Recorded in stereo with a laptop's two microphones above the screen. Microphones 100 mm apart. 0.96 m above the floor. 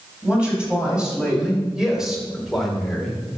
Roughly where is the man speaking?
Centre.